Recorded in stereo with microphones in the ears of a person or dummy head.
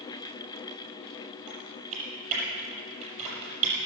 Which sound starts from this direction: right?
Typing on a keyboard, at 1.5 s.